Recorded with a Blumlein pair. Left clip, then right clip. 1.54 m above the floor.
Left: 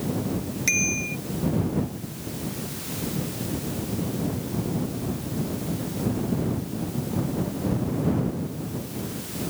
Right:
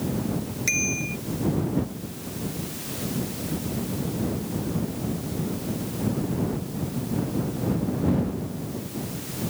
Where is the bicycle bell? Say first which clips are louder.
Left 2 dB; 5° left.